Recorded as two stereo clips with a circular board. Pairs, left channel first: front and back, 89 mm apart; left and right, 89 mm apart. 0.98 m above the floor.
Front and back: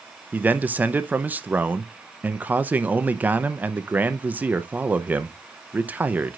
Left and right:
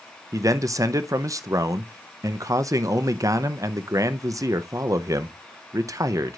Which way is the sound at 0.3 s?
120° right.